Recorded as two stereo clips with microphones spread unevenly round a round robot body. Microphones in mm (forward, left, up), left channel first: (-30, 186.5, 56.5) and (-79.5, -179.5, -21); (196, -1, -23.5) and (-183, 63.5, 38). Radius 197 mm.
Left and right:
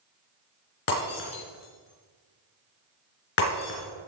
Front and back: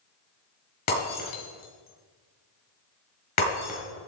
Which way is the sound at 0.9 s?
35° left.